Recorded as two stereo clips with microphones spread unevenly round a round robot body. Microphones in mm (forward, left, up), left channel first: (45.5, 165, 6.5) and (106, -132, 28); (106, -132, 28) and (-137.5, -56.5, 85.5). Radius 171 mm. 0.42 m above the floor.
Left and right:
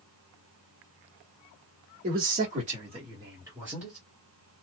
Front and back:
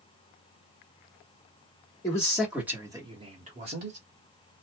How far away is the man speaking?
About 1.4 m.